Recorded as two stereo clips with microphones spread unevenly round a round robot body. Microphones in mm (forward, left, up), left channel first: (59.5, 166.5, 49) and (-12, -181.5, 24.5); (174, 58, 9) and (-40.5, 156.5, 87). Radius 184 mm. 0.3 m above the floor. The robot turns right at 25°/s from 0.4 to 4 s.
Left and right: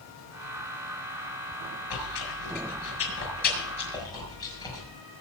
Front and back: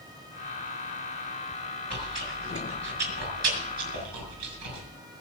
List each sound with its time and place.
1.9 s chewing: 105° left, 6.5 m; by 4.9 s 160° left, 6.5 m